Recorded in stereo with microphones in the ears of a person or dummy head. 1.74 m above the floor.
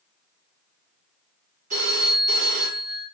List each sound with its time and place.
1.7 s a phone ringing: 45° right (ahead or behind), 1.8 m